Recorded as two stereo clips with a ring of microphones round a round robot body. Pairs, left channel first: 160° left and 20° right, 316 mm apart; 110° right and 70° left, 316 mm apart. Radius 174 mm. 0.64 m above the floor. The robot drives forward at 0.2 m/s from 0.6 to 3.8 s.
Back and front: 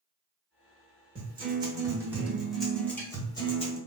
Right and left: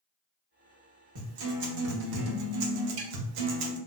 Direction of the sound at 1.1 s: 50° left.